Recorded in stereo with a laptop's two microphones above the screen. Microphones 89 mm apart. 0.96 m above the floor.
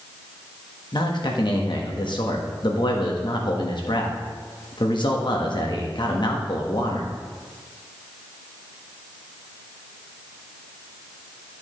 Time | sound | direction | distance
0.9 | a man speaking | 60° left (ahead or behind) | 1.1 m